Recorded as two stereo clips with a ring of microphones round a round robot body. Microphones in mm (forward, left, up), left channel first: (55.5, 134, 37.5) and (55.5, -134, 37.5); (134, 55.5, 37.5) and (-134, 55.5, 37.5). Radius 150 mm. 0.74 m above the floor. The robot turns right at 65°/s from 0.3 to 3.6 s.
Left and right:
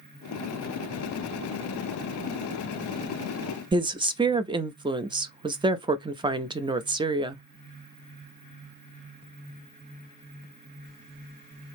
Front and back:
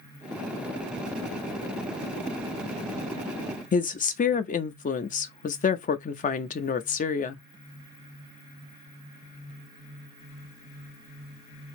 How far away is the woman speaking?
About 0.5 m.